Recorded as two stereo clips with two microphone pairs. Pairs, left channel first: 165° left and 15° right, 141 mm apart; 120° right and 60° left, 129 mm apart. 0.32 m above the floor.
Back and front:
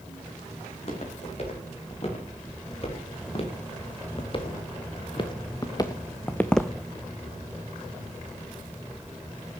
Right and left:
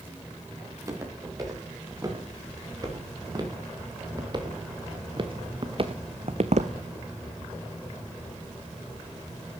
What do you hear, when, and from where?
0.7 s footsteps: 125° left, 7 m; by 6.7 s 70° left, 0.8 m